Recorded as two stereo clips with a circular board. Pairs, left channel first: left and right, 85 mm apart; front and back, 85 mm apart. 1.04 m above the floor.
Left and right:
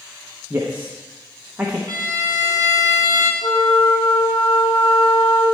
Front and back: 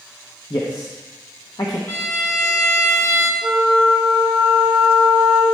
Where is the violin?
50° right, 1.3 m.